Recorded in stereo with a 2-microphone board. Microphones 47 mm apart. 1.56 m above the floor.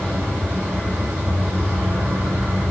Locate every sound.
0.0 s an insect: 50° right (ahead or behind), 2.5 m